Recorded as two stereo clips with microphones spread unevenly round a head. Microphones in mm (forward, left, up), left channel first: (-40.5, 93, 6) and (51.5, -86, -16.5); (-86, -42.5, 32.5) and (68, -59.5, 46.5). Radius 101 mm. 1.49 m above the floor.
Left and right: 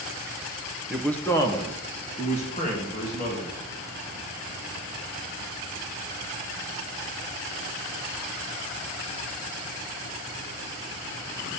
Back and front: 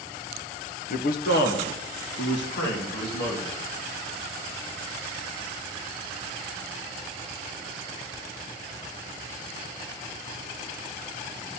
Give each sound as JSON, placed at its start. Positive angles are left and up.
{"t": 0.9, "sound": "a man speaking", "azimuth_deg": -150, "distance_m": 0.7}